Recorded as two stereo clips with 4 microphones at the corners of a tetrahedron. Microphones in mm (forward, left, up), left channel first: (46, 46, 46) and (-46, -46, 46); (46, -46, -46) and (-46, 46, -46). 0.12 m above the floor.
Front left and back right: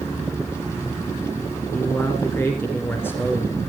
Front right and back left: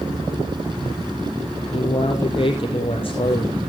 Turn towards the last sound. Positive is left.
turn(degrees=-20)